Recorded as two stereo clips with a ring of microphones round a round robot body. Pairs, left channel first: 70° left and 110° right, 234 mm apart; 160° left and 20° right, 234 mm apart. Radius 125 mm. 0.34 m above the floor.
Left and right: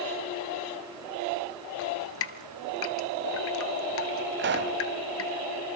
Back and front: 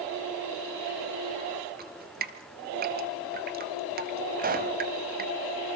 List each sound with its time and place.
1.8 s dripping: 30° left, 1.4 m
4.4 s a pop: 75° right, 2 m